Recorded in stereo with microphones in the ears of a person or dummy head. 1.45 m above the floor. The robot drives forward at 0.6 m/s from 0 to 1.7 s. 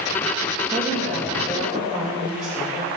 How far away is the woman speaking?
About 1.9 m.